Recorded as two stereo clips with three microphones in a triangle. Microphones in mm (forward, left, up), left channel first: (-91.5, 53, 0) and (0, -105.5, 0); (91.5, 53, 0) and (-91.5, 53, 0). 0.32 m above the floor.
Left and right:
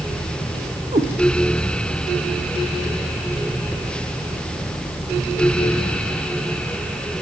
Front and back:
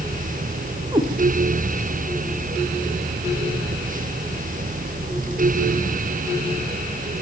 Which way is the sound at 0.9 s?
115° right.